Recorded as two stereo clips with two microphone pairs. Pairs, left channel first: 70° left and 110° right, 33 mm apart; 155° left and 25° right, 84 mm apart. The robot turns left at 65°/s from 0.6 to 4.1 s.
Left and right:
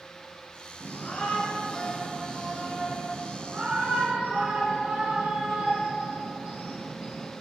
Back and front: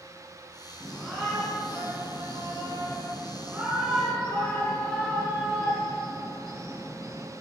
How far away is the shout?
About 2 m.